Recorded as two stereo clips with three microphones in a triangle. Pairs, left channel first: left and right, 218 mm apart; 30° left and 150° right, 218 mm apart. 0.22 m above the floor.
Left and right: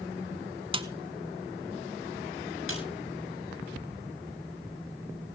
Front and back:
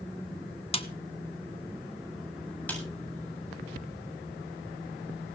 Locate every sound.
0.7 s a snare drum: 30° right, 1.5 m
2.7 s a snare drum: 115° left, 7.5 m